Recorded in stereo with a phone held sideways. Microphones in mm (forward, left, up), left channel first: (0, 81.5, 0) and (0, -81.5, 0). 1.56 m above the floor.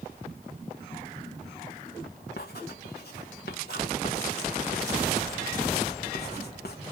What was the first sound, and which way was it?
Writing, 75° left (ahead or behind).